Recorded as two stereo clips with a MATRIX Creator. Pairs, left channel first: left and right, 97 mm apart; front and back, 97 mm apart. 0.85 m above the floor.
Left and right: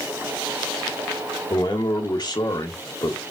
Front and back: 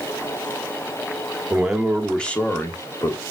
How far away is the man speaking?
About 1.2 m.